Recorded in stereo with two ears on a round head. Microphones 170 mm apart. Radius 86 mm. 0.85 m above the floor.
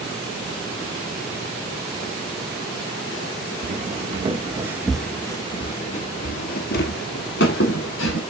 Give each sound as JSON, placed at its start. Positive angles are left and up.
{"t": 3.6, "sound": "footsteps", "side_deg": -45, "distance_m": 1.1}